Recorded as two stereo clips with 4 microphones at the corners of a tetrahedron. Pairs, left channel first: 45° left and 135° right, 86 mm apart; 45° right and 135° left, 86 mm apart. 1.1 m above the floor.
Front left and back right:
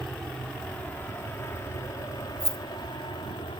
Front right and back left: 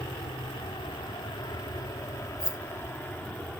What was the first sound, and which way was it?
An aircraft, 40° right.